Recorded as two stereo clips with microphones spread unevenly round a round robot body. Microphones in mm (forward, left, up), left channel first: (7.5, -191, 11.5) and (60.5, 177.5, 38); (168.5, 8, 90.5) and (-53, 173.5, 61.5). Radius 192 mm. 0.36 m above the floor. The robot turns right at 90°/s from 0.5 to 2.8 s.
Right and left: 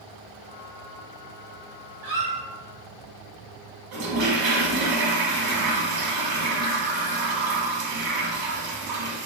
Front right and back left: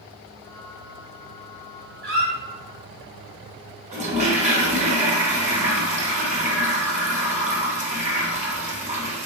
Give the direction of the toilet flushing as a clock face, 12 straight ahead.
9 o'clock.